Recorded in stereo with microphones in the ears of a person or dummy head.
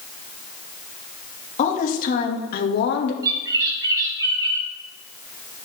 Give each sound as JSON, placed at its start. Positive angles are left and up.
{"t": 1.6, "sound": "a woman speaking", "side_deg": 50, "distance_m": 2.0}
{"t": 3.2, "sound": "a bird", "side_deg": -15, "distance_m": 2.0}